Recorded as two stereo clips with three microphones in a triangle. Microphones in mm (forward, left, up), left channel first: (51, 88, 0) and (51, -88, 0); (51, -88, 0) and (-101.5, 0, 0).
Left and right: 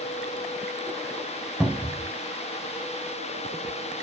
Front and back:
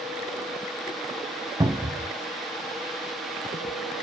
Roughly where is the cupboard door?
Behind.